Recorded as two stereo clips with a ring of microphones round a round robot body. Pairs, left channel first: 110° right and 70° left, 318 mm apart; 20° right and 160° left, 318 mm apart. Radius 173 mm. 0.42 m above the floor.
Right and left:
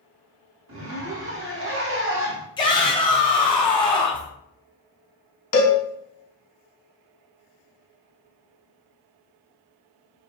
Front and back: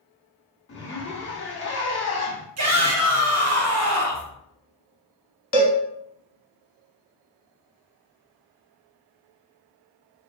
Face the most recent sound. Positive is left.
turn(degrees=-75)